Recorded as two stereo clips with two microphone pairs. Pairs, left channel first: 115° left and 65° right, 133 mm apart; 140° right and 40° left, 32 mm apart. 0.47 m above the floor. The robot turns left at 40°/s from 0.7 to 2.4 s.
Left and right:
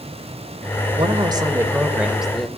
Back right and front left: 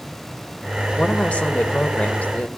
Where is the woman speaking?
100° right, 2 m; by 2.5 s 155° right, 2 m.